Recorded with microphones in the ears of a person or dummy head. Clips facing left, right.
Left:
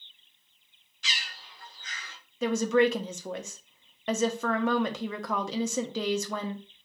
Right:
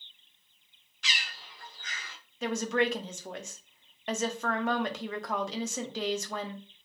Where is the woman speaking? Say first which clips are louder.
Left 5 dB; 60° left (ahead or behind), 0.6 m.